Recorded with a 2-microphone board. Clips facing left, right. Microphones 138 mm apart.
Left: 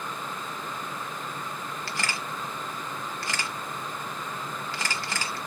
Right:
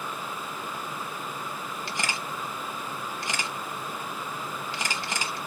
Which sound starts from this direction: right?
A camera shutter, at 1.9 s.